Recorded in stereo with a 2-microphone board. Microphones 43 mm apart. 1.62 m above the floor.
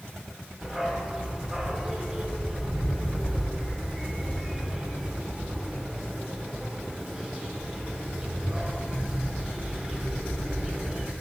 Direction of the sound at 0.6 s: 15° right (ahead or behind).